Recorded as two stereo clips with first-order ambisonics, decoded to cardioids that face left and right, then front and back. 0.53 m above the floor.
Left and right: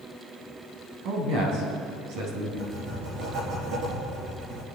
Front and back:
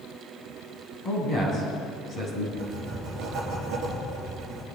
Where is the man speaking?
70° right, 4 m.